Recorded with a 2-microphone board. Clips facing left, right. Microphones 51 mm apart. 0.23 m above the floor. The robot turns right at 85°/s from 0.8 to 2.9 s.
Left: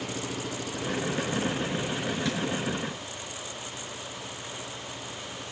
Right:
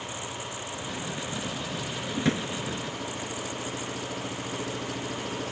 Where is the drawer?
20° right (ahead or behind); by 2.5 s 45° right (ahead or behind).